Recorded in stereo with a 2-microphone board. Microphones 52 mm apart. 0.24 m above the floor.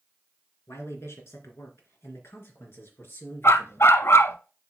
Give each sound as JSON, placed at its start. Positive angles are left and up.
{"t": 0.7, "sound": "a man speaking", "side_deg": 70, "distance_m": 2.5}
{"t": 3.4, "sound": "a dog barking", "side_deg": 65, "distance_m": 0.6}